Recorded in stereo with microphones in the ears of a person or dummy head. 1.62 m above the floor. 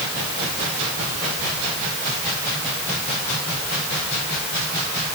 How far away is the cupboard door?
No cupboard door in this recording.